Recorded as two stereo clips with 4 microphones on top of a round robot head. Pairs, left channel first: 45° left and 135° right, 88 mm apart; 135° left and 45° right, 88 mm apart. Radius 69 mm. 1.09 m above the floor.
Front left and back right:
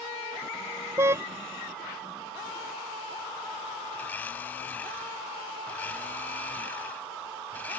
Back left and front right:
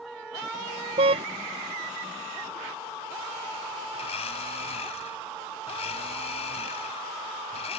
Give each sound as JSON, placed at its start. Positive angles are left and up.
{"t": 1.0, "sound": "a car horn", "azimuth_deg": -75}
{"t": 4.0, "sound": "a blender", "azimuth_deg": 120}